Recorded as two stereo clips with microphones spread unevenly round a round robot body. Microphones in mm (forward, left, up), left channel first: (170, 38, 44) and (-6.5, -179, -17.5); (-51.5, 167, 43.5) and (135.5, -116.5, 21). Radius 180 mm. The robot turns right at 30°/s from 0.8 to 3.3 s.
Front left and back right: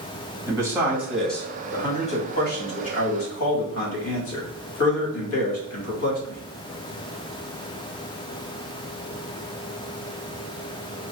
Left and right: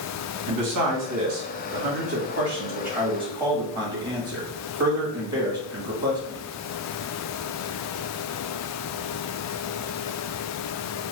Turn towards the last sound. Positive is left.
turn(degrees=15)